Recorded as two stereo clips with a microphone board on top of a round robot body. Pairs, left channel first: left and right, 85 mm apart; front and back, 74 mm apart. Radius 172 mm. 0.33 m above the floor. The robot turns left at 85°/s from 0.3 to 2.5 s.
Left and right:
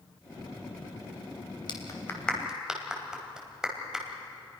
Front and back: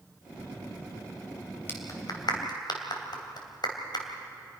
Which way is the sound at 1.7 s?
60° left.